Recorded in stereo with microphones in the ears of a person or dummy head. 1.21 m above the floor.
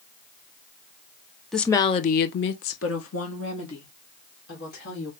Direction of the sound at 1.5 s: 10° left (ahead or behind).